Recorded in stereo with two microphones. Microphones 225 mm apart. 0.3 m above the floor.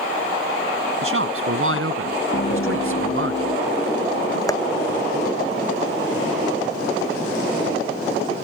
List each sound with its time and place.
1.0 s a man speaking: 65° right (ahead or behind); by 3.3 s 60° right (ahead or behind)
2.3 s laughter: 45° left (ahead or behind)
4.5 s tapping: 15° left (ahead or behind)